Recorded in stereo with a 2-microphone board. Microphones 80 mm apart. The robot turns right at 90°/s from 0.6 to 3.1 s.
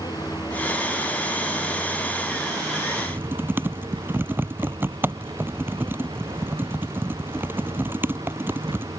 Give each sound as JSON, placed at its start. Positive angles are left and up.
{"t": 0.0, "sound": "a vehicle", "azimuth_deg": 55}
{"t": 3.0, "sound": "typing on a keyboard", "side_deg": -35}